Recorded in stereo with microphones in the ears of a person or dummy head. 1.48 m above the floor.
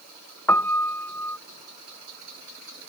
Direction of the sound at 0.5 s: 15° left (ahead or behind).